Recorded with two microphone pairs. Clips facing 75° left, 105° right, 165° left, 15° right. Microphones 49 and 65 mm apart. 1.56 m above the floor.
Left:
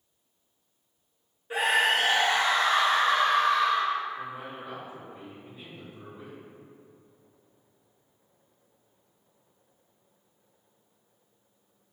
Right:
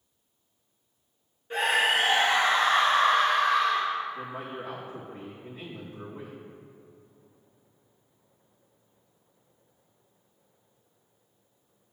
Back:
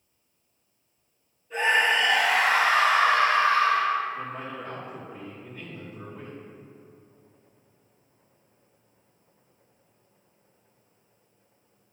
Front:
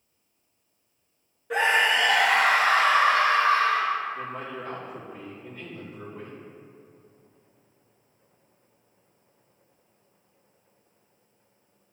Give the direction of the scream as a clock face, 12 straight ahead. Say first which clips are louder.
Even, front 1 dB; 12 o'clock.